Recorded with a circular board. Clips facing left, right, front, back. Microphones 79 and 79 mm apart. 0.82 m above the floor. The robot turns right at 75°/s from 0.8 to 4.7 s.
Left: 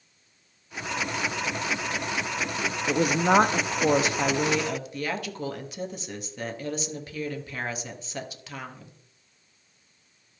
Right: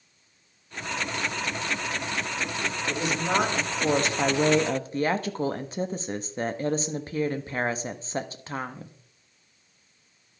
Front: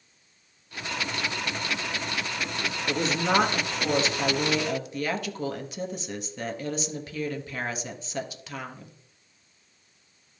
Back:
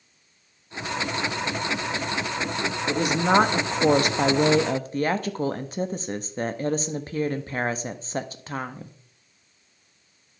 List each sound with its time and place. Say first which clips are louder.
2.9 s a woman speaking: left 6 dB, back 4 dB; 85° left, 0.9 m; by 9.0 s 135° right, 0.9 m